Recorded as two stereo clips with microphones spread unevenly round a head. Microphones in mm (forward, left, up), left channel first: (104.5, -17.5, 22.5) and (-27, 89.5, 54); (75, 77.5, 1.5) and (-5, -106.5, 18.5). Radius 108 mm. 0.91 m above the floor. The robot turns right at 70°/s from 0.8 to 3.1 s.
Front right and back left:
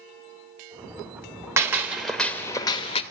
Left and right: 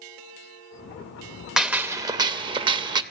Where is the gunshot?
170° left, 0.6 m; by 3.0 s 85° right, 0.6 m.